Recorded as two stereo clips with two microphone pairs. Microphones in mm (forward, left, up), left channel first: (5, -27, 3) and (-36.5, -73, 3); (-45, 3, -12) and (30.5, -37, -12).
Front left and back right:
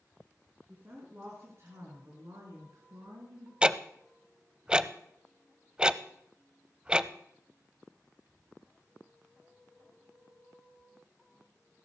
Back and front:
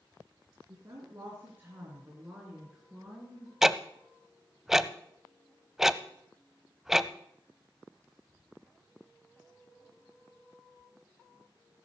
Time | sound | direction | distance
0.7 | a woman speaking | 75° right | 3.5 m
3.6 | ticking | 105° right | 0.5 m